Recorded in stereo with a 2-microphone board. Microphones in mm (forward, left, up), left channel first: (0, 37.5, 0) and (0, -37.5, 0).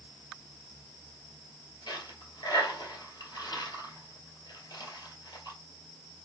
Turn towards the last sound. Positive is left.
turn(degrees=70)  # may be behind; listen again after turning